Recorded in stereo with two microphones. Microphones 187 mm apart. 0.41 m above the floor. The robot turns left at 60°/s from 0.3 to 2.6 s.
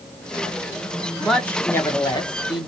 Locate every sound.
1.2 s a man speaking: centre (ahead or behind), 1.3 m; by 2.7 s 25° left (ahead or behind), 1.3 m